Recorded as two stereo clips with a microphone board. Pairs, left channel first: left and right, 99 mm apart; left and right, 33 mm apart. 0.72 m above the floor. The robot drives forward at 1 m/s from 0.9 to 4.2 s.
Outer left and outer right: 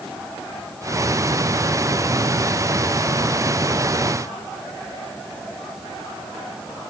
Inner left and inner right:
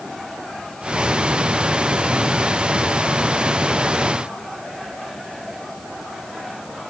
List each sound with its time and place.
Only background noise.